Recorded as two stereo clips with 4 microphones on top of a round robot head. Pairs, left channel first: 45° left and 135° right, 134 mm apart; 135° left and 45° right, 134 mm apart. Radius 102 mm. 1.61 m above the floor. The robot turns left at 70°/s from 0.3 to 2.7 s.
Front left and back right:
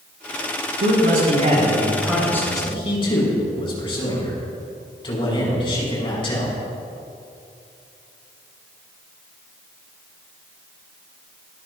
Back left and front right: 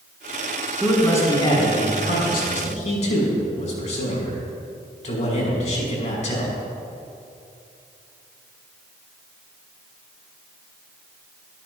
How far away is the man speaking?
About 5.5 m.